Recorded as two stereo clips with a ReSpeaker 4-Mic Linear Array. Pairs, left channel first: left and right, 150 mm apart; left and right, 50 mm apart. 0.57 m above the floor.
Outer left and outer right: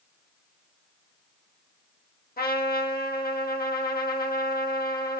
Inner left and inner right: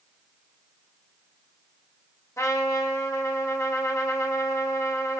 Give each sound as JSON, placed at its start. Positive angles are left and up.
{"t": 2.4, "sound": "a trumpet", "side_deg": 75, "distance_m": 0.7}